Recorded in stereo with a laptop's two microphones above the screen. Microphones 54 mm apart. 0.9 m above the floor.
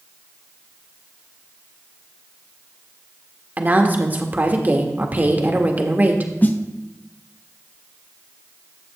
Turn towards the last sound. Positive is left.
turn(degrees=35)  # may be behind; listen again after turning